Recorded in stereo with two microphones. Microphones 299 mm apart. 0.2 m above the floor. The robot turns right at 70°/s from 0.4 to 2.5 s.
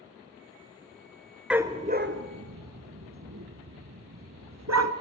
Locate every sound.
1.5 s a dog barking: 5° right (ahead or behind), 1.1 m; by 4.9 s 65° right (ahead or behind), 1.1 m